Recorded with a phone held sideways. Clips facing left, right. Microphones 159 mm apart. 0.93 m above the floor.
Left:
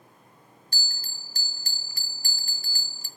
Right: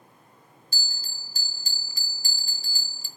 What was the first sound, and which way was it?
A bell, 55° left (ahead or behind).